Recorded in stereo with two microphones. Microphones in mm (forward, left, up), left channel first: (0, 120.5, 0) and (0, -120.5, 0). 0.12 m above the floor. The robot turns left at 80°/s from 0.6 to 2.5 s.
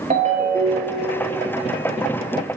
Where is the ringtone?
35° right, 1.3 m; by 1.1 s 80° right, 1.3 m.